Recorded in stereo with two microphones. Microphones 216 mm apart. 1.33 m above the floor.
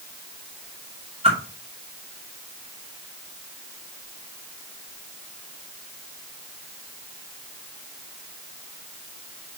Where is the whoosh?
30° right (ahead or behind), 2.5 m.